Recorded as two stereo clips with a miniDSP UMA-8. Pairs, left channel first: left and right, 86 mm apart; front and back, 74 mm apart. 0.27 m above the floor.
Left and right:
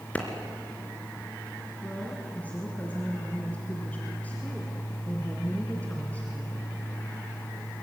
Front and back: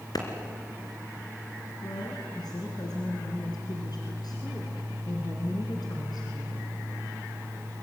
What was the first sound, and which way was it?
A clap, 20° left.